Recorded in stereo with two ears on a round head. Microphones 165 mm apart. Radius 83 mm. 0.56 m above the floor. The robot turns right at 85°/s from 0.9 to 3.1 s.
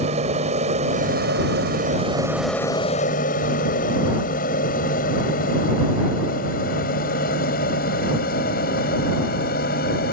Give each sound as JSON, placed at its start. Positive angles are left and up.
{"t": 0.0, "sound": "an aircraft", "side_deg": -40}